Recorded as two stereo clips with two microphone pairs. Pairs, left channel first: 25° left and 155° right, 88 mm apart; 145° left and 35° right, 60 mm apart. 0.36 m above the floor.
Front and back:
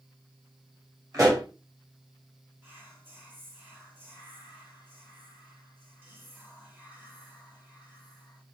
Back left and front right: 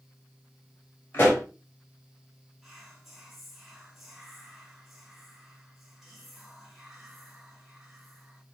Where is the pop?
Straight behind, 1.7 m.